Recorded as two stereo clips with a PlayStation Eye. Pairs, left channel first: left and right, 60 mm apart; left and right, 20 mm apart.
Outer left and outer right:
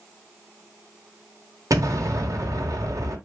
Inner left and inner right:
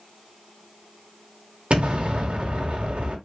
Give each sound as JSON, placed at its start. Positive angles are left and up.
{"t": 1.7, "sound": "an explosion", "side_deg": -70, "distance_m": 1.6}